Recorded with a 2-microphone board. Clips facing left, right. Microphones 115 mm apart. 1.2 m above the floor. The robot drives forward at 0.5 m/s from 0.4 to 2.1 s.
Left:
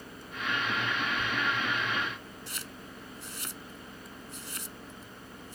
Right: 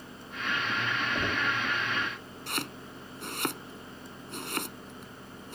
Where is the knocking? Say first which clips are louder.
Right 1 dB; 70° right (ahead or behind); by 1.6 s 65° right (ahead or behind).